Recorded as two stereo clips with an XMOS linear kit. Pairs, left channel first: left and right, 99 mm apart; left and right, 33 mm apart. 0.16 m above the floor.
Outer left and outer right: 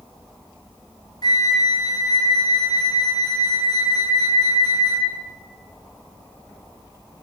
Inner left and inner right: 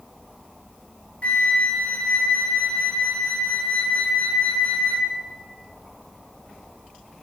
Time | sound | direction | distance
1.2 | a flute | 45° left (ahead or behind) | 0.7 m